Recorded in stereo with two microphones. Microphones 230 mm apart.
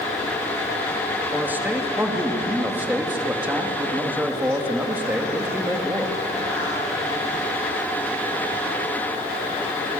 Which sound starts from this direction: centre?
A man speaking, at 1.3 s.